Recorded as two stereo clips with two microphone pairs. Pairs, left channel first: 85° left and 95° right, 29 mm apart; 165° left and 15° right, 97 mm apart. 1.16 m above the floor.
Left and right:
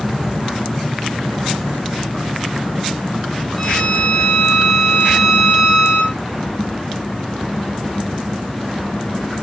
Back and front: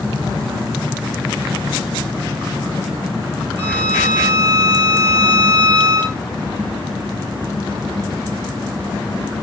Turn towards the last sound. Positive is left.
turn(degrees=170)